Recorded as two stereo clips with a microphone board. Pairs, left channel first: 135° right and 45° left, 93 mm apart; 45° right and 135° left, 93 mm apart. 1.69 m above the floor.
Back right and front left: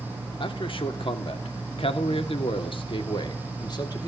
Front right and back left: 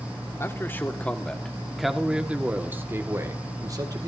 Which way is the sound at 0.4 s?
105° right.